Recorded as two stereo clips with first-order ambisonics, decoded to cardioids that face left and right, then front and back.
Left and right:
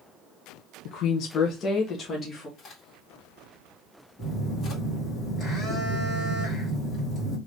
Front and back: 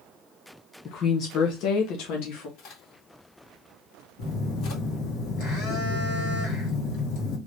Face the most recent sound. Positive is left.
turn(degrees=25)